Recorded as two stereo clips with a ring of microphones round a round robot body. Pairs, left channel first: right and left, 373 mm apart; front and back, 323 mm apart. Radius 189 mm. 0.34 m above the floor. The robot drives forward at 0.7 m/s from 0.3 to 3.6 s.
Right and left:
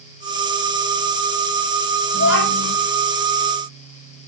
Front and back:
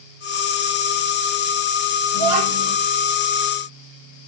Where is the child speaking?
150° right, 8.5 m.